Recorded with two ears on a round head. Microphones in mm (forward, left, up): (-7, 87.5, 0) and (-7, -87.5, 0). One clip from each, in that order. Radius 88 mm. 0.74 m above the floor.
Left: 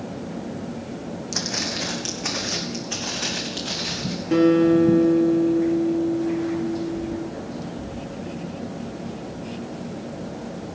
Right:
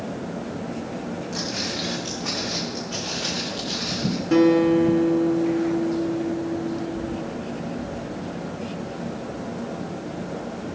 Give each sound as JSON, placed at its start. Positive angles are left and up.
{"t": 1.3, "sound": "footsteps", "side_deg": 60, "distance_m": 2.5}
{"t": 4.3, "sound": "a guitar", "side_deg": -15, "distance_m": 2.0}